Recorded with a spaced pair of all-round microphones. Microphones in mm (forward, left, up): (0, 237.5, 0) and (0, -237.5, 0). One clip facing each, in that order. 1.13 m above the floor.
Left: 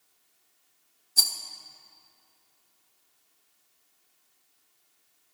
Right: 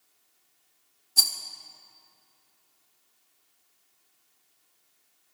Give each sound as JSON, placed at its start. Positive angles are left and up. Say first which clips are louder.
{"t": 1.2, "sound": "a rattle", "louder": "right 1 dB", "side_deg": -15, "distance_m": 1.2}